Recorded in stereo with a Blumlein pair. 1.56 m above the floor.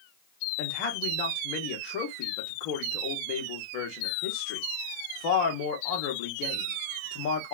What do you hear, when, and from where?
0.6 s a man speaking: 45° left, 1.1 m